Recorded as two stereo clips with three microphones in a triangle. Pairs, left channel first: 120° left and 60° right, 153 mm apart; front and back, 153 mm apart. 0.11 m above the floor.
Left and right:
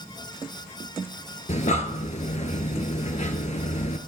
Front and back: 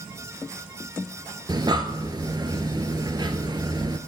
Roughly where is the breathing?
Behind left.